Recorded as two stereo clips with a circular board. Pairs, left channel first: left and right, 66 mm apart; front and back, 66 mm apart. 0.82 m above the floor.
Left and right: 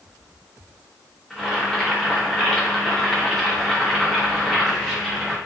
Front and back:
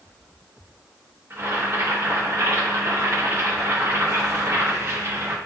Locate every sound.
1.3 s boiling: 170° left, 0.9 m